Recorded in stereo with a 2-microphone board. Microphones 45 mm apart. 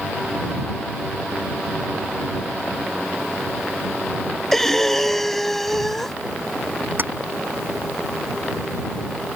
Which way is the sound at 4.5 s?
5° left (ahead or behind).